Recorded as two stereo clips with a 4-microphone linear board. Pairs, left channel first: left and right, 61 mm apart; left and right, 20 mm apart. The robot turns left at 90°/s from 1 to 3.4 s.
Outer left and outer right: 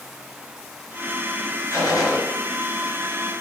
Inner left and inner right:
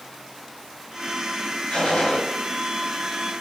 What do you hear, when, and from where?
1.7 s a gunshot: 120° left, 4.5 m; by 2.2 s 70° left, 4.5 m